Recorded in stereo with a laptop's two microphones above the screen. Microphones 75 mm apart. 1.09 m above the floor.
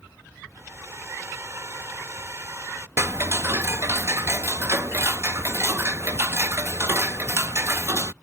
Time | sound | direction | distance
0.6 | a hair dryer | 40° right (ahead or behind) | ?
3.0 | ticking | 35° right (ahead or behind) | ?